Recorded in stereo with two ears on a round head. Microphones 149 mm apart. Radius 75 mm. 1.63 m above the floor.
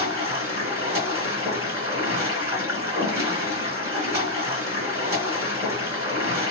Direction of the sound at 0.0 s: 20° right (ahead or behind).